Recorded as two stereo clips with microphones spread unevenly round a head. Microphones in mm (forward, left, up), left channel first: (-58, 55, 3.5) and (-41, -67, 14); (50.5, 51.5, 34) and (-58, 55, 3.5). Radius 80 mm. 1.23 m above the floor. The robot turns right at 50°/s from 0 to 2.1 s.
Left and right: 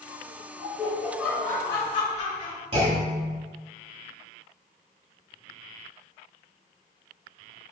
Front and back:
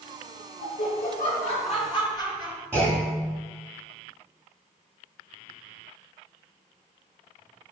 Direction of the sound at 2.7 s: 95° right.